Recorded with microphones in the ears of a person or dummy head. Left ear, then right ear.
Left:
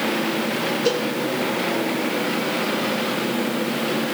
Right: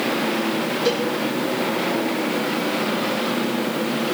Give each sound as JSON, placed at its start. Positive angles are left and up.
{"t": 0.8, "sound": "a cowbell", "side_deg": 5, "distance_m": 4.5}